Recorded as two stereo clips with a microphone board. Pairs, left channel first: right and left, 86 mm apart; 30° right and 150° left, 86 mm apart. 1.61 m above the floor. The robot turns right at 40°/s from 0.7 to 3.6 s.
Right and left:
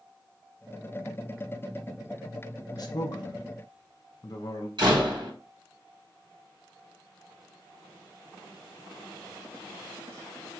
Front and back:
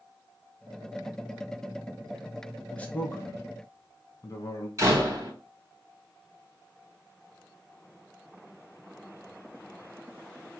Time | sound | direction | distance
2.7 | a man speaking | 100° right | 0.8 m
4.8 | a door slam | 100° left | 1.8 m